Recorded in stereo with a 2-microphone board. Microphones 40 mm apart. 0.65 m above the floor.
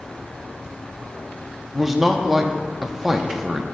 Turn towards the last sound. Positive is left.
turn(degrees=-10)  # may be behind; listen again after turning